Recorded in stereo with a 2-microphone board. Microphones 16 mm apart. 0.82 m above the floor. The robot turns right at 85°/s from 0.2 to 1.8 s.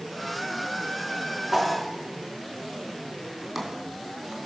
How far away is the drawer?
About 2.5 m.